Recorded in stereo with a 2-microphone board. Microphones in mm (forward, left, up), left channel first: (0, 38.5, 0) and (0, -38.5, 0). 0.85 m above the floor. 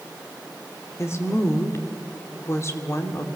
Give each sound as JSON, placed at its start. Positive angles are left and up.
{"t": 1.0, "sound": "a woman speaking", "side_deg": 35, "distance_m": 2.0}